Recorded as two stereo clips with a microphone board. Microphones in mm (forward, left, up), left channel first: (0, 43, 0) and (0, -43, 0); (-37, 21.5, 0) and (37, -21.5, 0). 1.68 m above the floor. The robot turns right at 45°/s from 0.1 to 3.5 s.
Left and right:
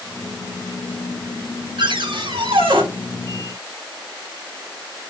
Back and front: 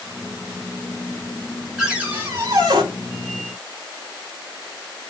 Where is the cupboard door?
115° right, 6.5 m; by 2.8 s 65° right, 6.5 m.